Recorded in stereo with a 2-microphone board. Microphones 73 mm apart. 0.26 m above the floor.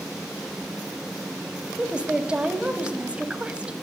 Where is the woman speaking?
15° right (ahead or behind), 1.1 m.